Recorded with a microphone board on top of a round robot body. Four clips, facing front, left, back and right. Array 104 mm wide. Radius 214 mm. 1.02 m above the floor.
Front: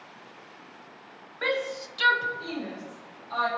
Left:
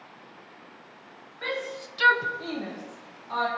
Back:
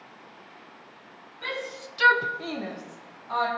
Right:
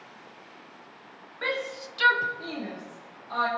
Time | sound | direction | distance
1.4 | a shout | 20° right | 0.6 m